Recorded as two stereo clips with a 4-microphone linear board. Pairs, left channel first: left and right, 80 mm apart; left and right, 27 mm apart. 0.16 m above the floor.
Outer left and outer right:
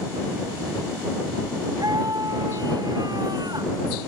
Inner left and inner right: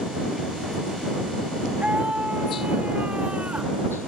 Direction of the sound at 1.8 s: 50° right (ahead or behind).